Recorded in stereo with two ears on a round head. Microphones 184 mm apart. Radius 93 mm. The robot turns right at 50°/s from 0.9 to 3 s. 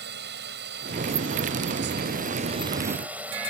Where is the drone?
115° right; by 3.5 s 10° right.